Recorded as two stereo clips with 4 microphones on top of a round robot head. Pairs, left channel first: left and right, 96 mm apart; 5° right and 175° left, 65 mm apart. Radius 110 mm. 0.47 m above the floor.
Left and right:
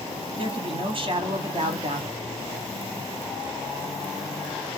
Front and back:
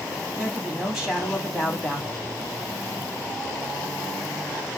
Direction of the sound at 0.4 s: 90° right.